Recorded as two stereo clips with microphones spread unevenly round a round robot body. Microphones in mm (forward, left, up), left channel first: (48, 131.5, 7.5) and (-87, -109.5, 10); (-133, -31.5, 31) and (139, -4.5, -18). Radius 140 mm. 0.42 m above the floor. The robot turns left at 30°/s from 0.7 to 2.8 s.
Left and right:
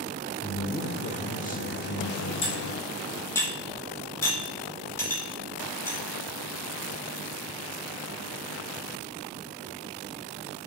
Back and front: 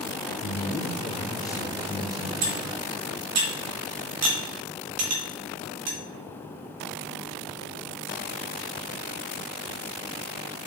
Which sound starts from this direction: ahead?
Cutlery clinking, at 2.4 s.